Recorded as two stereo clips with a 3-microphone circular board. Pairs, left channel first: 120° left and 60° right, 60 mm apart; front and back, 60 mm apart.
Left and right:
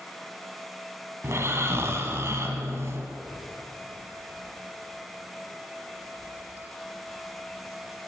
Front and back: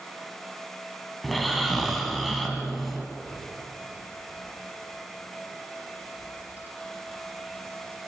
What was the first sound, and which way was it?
Snoring, 90° right.